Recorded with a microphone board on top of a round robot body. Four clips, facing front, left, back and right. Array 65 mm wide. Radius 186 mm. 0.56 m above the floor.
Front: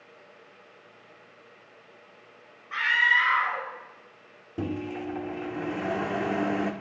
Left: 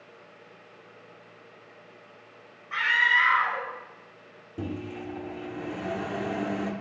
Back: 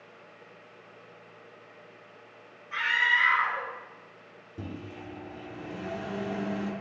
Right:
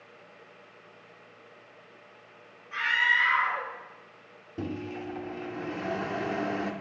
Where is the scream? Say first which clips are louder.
Left 3 dB, front 3 dB; 40° left, 2 m.